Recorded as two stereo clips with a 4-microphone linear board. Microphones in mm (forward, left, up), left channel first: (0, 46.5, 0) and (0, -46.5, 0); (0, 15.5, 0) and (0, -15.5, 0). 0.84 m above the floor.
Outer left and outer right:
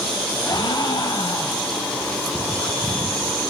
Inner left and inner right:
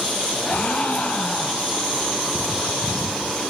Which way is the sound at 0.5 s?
45° left (ahead or behind).